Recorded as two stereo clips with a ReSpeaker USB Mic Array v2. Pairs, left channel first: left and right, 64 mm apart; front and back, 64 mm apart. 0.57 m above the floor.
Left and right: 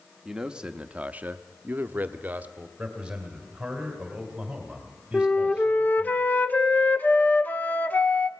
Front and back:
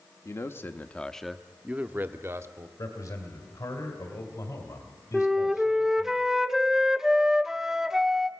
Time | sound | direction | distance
0.2 | a man speaking | 10° right | 0.9 m
2.8 | a man speaking | 15° right | 2.5 m
5.1 | a flute | 105° left | 0.7 m